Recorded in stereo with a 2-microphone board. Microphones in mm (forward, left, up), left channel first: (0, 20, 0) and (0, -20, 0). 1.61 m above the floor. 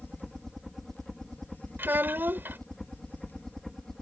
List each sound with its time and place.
0.0 s a helicopter: 5° left (ahead or behind); by 4.0 s 10° left (ahead or behind)
1.8 s a child speaking: 55° right (ahead or behind)